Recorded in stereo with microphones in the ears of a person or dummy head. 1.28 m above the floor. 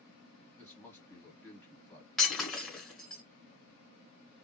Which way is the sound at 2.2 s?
5° left (ahead or behind).